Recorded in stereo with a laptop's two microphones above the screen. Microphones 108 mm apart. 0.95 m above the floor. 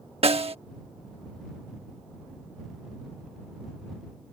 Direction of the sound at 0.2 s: 70° right (ahead or behind).